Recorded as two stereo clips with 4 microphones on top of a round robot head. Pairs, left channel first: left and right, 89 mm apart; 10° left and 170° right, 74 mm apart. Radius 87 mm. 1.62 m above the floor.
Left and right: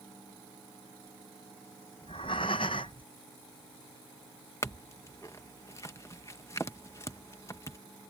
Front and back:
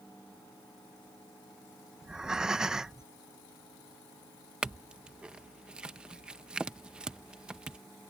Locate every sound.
2.0 s breathing: 110° left
4.6 s a clink: 120° left